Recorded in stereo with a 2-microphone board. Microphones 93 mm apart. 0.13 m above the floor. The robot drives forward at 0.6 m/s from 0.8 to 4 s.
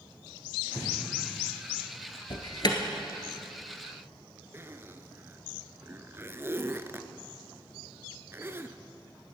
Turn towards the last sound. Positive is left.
turn(degrees=-25)  # may be behind; listen again after turning